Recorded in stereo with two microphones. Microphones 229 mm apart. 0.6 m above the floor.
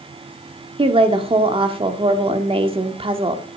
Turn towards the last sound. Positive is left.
turn(degrees=-25)  # may be behind; listen again after turning